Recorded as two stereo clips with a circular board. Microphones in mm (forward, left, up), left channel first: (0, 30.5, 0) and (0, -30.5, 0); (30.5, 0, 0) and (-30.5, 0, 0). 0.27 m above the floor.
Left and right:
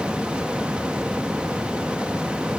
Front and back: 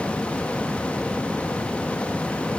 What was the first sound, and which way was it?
Only background noise.